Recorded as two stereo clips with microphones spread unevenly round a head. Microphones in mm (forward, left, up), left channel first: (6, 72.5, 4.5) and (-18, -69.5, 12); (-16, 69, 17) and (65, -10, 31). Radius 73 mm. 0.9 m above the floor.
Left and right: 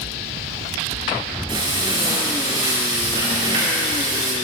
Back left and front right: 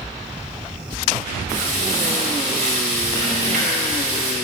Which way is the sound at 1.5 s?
40° right.